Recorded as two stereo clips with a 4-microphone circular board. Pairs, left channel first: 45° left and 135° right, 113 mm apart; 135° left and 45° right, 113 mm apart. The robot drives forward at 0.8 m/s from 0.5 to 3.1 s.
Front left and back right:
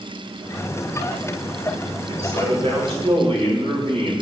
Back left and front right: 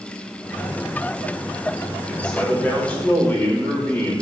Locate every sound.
2.1 s a man speaking: 145° right, 2 m; by 4.1 s 155° right, 3 m